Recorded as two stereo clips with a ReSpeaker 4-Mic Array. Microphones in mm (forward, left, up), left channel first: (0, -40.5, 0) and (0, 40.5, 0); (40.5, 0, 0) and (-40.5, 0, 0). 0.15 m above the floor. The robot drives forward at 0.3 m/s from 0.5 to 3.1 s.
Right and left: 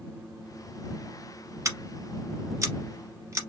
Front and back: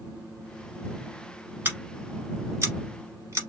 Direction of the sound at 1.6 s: 125° left.